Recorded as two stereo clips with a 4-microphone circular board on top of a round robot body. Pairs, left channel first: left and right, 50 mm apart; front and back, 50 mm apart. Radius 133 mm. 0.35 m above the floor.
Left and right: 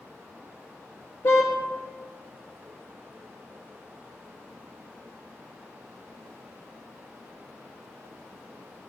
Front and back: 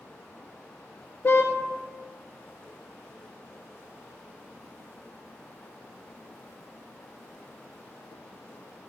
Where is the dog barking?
No dog barking in this recording.